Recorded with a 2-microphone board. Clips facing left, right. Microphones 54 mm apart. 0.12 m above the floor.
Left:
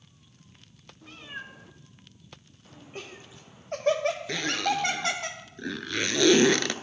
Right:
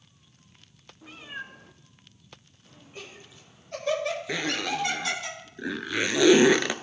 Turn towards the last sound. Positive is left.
turn(degrees=-15)  # may be behind; listen again after turning